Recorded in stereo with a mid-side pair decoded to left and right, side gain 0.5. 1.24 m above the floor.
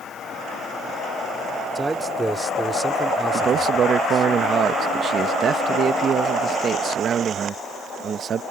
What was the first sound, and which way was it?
A man speaking, 15° right.